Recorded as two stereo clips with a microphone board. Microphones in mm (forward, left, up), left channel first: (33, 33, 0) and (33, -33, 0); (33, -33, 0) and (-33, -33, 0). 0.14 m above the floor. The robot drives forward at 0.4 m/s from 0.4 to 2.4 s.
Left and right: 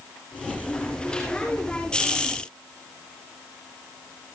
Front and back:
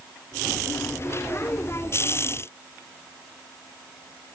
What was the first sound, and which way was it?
Only background noise.